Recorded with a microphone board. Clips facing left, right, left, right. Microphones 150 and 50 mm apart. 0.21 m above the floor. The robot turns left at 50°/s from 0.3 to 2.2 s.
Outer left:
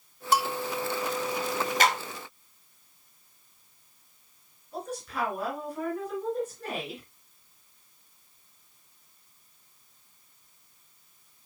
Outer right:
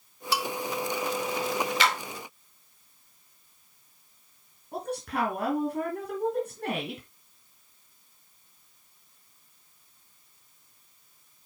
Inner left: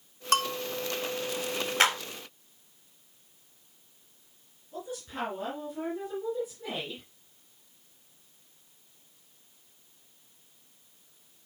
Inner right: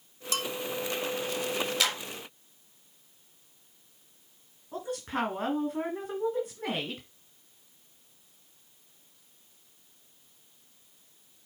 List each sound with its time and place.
0.3 s a bell: 50° left (ahead or behind), 1.4 m; by 0.6 s 35° left (ahead or behind), 1.4 m
1.8 s a clap: 45° left (ahead or behind), 2 m; by 2.0 s 40° left (ahead or behind), 2 m
4.7 s a woman speaking: 65° right (ahead or behind), 3 m